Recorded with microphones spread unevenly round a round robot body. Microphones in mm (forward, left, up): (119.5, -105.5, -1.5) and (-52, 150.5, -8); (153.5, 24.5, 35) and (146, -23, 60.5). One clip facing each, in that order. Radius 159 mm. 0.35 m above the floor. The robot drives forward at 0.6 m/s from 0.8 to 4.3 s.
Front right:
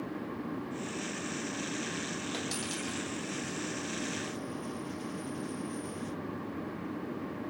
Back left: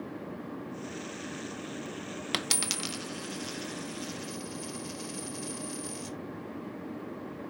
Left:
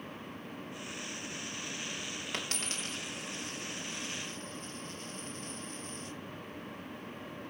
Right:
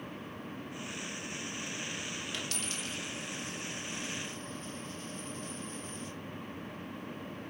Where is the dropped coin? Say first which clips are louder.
Front right 1 dB, left 1 dB; 130° left, 0.9 m; by 6.2 s 160° left, 1.9 m.